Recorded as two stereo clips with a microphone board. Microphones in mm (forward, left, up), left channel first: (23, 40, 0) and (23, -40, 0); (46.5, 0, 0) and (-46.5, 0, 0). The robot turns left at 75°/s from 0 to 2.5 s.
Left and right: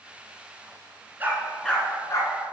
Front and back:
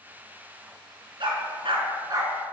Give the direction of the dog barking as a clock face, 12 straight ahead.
5 o'clock.